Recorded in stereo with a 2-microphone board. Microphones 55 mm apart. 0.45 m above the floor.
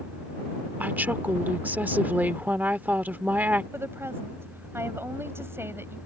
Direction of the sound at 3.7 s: 50° right (ahead or behind).